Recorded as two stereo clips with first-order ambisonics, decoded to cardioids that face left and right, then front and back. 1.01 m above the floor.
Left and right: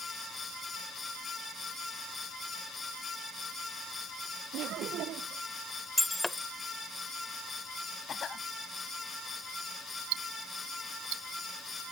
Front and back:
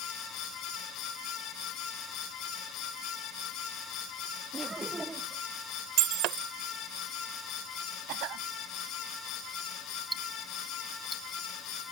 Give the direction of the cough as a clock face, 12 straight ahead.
7 o'clock.